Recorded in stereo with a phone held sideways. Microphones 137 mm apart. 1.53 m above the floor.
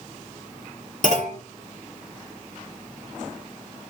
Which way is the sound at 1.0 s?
65° left (ahead or behind).